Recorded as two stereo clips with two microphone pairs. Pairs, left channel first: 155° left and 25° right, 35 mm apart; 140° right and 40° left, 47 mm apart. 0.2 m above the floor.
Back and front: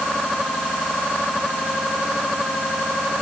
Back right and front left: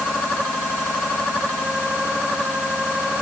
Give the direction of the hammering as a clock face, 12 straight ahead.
No hammering in this recording.